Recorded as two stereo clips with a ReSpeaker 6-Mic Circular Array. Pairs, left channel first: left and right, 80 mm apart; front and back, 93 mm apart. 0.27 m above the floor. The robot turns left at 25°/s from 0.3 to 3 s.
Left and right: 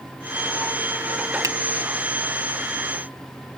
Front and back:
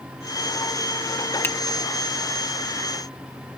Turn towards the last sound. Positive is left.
turn(degrees=-100)